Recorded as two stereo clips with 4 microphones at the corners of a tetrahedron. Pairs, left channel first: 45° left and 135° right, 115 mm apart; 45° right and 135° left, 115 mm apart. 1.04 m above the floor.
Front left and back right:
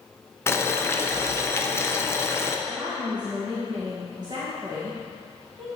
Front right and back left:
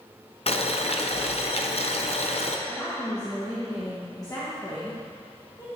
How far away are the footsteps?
I don't hear footsteps.